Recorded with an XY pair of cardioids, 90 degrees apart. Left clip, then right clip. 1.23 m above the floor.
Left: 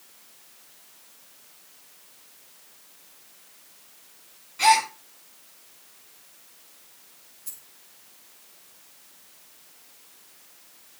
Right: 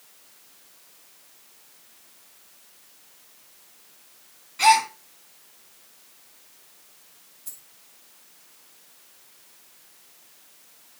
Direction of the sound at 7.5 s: 10° right.